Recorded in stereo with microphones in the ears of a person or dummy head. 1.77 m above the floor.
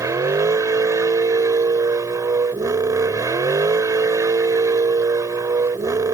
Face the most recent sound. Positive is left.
turn(degrees=-15)  # may be behind; listen again after turning